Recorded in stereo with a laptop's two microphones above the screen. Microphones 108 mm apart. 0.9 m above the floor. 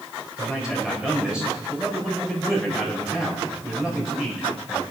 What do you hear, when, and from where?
0.4 s a man speaking: 5° right (ahead or behind), 4.5 m